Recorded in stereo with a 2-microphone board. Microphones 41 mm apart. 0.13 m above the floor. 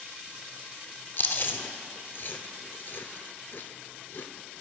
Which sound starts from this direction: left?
Chewing, at 1.2 s.